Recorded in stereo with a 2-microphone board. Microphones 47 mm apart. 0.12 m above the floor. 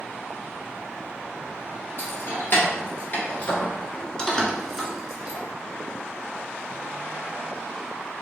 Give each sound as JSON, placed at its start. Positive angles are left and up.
{"t": 2.0, "sound": "keys jangling", "side_deg": 55, "distance_m": 1.6}